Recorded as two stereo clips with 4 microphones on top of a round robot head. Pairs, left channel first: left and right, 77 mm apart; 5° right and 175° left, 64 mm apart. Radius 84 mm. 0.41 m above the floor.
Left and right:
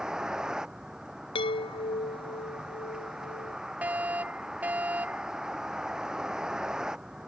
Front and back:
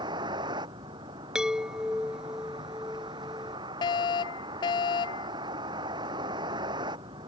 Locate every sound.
0.0 s a vehicle: 170° right
1.4 s a chime: 95° left
3.8 s a fire alarm: 15° right